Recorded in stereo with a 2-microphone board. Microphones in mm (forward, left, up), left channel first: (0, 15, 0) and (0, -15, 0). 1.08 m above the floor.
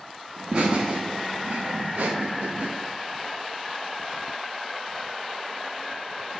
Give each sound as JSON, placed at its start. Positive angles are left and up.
{"t": 0.4, "sound": "laughter", "side_deg": -20, "distance_m": 1.6}